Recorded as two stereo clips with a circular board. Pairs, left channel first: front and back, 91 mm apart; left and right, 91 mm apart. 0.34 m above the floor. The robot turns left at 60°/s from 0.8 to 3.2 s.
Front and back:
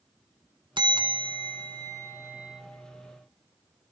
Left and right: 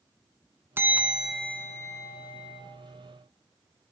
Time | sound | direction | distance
0.8 | a bell | 155° right | 1.3 m